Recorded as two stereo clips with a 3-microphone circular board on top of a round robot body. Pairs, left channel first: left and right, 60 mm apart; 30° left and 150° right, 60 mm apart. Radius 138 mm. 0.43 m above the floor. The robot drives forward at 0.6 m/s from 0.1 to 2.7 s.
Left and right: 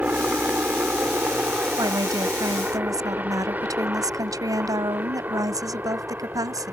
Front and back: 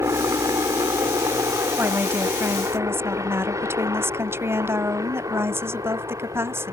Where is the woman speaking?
95° right; by 6.7 s 105° right.